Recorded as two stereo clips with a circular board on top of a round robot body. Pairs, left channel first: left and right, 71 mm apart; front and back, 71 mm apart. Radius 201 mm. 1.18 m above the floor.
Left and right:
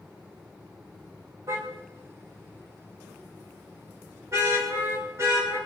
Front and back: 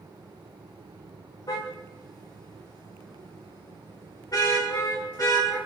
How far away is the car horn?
About 2.5 m.